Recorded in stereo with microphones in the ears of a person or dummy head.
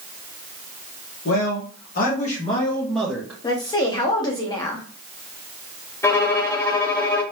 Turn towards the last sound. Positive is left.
turn(degrees=10)  # may be behind; listen again after turning